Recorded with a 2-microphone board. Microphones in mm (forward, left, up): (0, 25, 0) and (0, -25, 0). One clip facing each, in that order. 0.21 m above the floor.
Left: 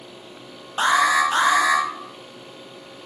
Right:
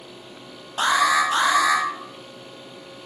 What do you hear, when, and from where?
0.8 s an alarm: 25° left (ahead or behind), 1.9 m